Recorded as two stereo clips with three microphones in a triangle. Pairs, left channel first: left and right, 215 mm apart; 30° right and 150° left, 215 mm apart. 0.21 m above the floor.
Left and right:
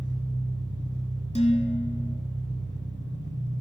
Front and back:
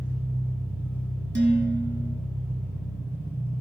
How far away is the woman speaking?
No woman speaking in this recording.